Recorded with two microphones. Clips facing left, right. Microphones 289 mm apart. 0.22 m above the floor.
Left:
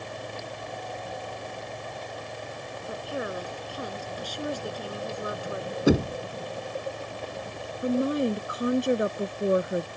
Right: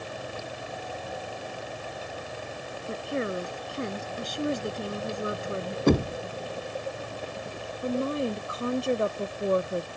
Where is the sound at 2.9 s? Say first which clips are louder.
Right 3 dB; 25° right (ahead or behind).